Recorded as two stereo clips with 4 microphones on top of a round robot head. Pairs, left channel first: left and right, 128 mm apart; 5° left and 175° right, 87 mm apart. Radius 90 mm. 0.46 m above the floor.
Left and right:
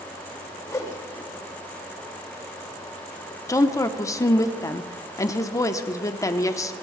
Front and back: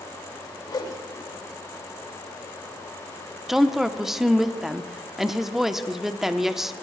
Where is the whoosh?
30° left, 2.0 m.